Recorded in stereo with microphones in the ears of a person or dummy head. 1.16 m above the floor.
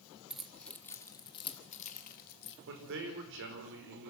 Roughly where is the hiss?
I don't hear a hiss.